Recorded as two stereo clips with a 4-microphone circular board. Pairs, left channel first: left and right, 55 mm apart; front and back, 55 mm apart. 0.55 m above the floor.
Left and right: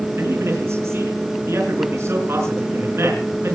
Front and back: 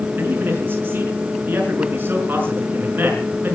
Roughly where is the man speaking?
Behind right.